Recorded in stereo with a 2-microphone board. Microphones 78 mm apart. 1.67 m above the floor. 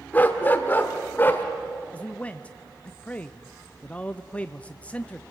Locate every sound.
0.1 s a dog barking: 25° left (ahead or behind), 1.5 m
1.9 s a man speaking: 20° left (ahead or behind), 0.5 m